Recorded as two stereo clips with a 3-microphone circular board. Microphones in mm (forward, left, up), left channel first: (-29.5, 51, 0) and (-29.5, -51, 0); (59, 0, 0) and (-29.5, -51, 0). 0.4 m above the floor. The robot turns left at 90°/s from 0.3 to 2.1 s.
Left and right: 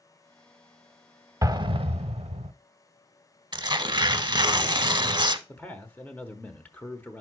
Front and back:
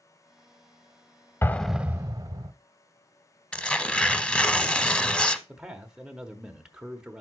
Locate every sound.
1.4 s an explosion: 35° right, 0.5 m; by 2.5 s 100° right, 0.5 m
3.5 s tearing paper: 50° right, 0.5 m
5.5 s a man speaking: 140° left, 0.9 m